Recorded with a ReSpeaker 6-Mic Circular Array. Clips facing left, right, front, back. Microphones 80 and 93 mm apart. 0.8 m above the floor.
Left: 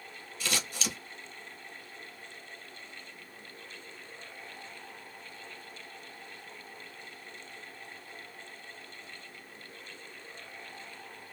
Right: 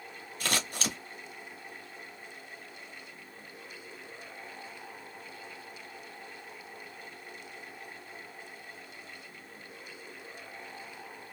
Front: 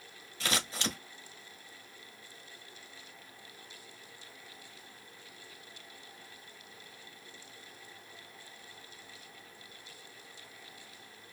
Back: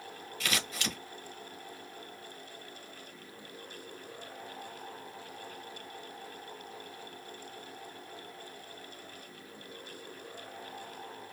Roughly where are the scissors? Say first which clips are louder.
Right 2 dB, front 1 dB; ahead right.